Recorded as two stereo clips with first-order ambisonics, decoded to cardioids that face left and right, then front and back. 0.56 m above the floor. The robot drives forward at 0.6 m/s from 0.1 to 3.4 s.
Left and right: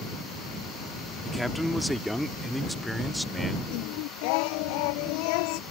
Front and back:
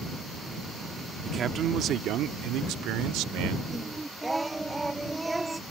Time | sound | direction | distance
1.2 | a man speaking | 175° left | ?
3.7 | singing | 100° left | ?